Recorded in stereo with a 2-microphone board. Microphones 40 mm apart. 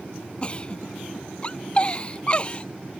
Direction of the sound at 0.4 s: 25° left (ahead or behind).